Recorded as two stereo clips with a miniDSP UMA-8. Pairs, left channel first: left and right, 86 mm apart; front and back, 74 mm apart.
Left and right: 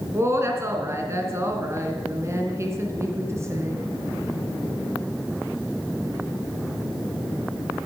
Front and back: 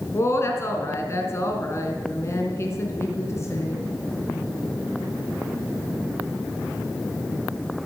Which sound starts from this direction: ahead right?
A woman speaking, at 0.1 s.